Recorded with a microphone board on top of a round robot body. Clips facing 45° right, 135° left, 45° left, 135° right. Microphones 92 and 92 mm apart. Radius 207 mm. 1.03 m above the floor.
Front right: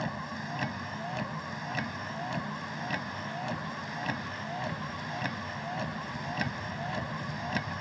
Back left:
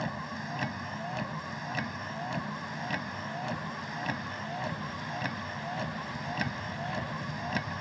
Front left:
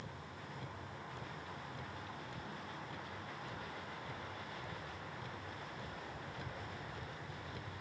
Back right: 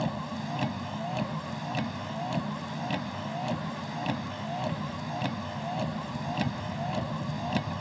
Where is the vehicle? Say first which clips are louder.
Even, back right 17 dB; 135° right.